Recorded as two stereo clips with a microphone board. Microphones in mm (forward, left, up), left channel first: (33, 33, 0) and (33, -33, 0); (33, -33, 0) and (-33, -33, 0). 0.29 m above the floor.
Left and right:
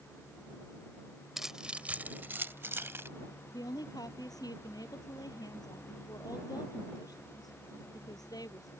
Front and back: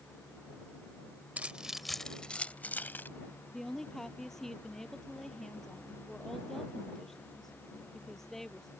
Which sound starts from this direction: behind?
Keys jangling, at 1.4 s.